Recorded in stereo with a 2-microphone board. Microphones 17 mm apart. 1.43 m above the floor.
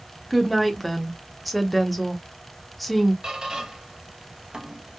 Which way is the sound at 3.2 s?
55° right (ahead or behind).